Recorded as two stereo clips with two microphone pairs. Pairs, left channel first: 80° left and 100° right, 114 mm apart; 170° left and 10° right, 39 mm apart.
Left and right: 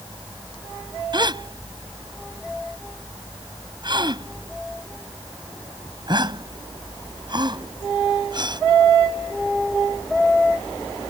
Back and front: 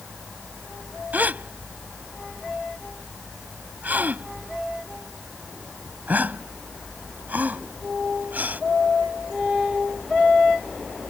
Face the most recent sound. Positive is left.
turn(degrees=-55)